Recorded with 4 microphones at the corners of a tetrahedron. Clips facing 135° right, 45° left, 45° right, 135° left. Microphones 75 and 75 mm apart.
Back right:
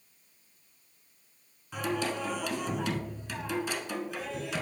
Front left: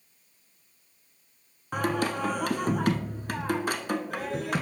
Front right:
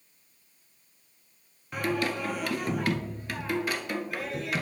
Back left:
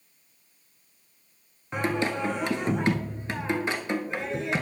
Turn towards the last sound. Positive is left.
turn(degrees=75)